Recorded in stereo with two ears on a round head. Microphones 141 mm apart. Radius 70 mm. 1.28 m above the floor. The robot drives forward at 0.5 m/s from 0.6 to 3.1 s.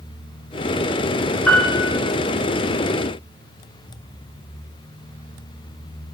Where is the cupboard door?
No cupboard door in this recording.